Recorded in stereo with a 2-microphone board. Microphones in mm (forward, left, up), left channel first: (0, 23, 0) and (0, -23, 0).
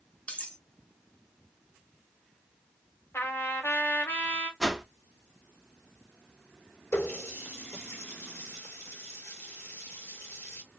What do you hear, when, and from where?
0.3 s cutlery clinking: 30° left (ahead or behind), 0.5 m
3.1 s a trumpet: 60° left (ahead or behind), 1.1 m
4.6 s a whoosh: 5° right (ahead or behind), 0.6 m
6.9 s a running tap: 85° left, 1.5 m